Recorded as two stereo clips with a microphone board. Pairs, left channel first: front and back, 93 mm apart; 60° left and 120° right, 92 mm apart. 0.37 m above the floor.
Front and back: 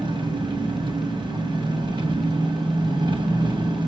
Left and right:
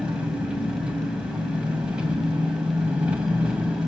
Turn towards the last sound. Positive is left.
turn(degrees=165)